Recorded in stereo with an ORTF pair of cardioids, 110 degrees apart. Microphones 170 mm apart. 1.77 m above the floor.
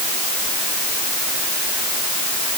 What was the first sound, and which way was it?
Only background noise.